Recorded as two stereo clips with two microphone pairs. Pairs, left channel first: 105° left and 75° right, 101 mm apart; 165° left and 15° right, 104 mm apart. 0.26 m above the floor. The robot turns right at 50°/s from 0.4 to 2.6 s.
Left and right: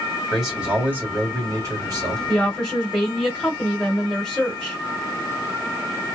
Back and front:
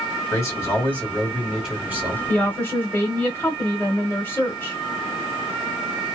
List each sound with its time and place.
0.3 s a man speaking: 160° right, 1.5 m; by 2.2 s 70° right, 1.5 m
2.3 s a woman speaking: 165° left, 1.0 m; by 4.8 s straight behind, 1.0 m